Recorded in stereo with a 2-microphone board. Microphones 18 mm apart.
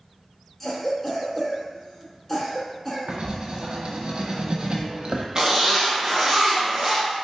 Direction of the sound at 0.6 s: 10° left (ahead or behind).